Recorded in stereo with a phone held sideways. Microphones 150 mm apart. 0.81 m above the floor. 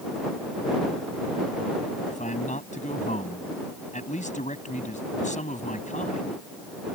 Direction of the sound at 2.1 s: 50° left (ahead or behind).